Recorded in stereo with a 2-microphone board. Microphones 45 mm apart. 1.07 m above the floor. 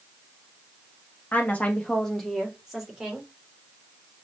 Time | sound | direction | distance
1.3 | a woman speaking | 45° left (ahead or behind) | 0.8 m